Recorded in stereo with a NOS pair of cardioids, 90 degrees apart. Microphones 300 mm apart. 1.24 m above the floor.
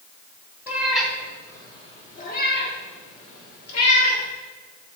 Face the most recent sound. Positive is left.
turn(degrees=60)